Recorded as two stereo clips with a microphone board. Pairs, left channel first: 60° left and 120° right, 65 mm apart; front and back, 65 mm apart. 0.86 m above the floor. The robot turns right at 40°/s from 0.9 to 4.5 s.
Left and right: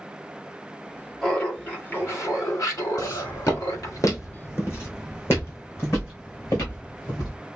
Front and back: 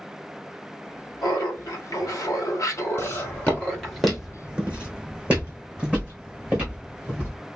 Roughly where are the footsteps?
Ahead left.